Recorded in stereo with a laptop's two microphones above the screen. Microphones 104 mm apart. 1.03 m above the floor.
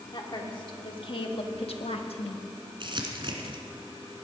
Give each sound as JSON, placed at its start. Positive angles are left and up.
{"t": 0.1, "sound": "a woman speaking", "side_deg": 55, "distance_m": 2.5}
{"t": 2.8, "sound": "crumpling", "side_deg": -55, "distance_m": 1.7}